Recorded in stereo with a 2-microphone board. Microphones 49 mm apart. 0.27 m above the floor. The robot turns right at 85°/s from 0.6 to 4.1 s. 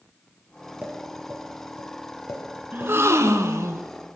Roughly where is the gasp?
Behind right.